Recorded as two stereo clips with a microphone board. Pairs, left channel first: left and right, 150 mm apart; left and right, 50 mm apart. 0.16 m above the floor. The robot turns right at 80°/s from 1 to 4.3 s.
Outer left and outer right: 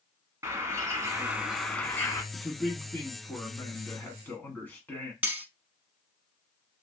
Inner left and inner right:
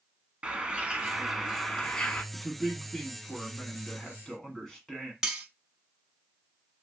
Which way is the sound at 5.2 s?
10° right (ahead or behind).